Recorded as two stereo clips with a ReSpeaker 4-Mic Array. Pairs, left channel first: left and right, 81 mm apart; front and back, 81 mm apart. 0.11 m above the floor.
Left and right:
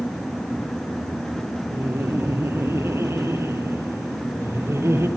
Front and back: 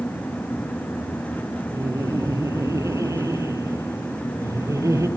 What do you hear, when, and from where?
1.7 s laughter: 140° right, 3 m